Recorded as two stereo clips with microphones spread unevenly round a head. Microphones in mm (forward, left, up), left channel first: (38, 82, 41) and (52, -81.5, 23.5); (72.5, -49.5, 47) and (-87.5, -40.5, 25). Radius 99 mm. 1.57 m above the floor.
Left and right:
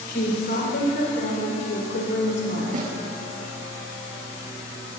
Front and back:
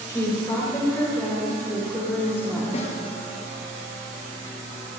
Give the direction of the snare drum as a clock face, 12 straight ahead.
2 o'clock.